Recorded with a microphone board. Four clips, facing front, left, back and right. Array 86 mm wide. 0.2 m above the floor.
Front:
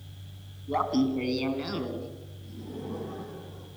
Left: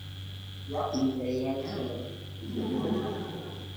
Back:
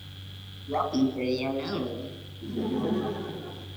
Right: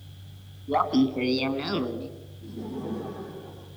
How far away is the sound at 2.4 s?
About 4 m.